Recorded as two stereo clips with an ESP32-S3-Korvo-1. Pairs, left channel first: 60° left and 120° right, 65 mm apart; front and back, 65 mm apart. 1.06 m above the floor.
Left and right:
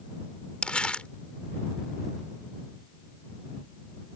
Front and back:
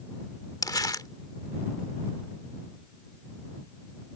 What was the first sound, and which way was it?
Crumpling, 15° right.